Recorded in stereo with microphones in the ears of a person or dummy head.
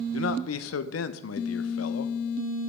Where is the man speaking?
80° left, 0.5 m.